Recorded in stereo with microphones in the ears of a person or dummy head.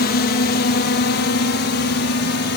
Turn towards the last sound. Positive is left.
turn(degrees=50)  # may be behind; listen again after turning